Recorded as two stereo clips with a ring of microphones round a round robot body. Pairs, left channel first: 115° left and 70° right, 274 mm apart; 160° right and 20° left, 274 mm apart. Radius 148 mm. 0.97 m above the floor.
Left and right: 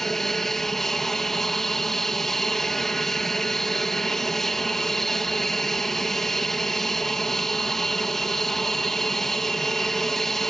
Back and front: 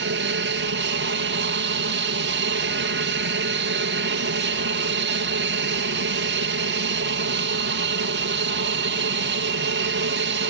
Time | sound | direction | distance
0.0 | an aircraft | 25° left | ?